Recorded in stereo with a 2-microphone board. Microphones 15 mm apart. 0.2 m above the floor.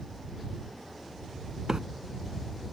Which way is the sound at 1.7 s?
50° right (ahead or behind).